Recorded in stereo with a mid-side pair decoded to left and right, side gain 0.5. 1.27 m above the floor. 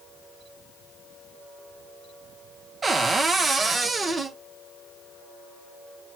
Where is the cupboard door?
35° right, 0.6 m.